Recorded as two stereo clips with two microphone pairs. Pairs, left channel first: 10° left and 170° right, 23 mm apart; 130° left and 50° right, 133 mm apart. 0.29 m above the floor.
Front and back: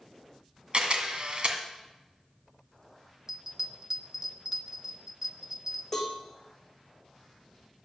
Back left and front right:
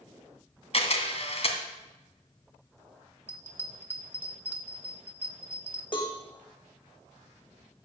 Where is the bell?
115° right, 1.2 m.